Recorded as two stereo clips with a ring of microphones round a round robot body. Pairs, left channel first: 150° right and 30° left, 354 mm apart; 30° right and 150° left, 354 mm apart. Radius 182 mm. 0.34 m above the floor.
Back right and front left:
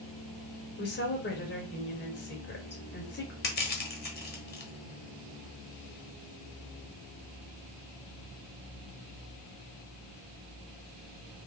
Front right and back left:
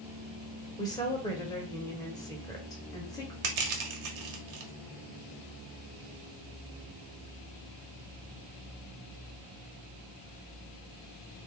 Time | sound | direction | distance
0.8 | a woman speaking | 105° right | 1.9 m
3.4 | crushing | 150° left | 1.4 m